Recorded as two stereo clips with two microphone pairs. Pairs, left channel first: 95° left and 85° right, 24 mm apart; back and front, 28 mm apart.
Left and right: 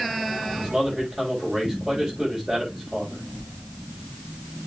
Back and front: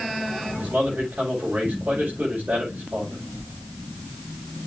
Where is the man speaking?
5° right, 5.5 m.